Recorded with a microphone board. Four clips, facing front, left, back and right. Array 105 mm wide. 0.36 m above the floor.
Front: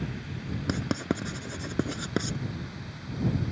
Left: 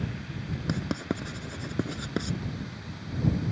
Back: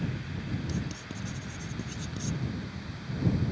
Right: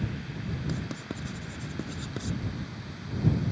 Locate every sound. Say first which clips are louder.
0.7 s writing: left 5 dB, front 8 dB; 25° left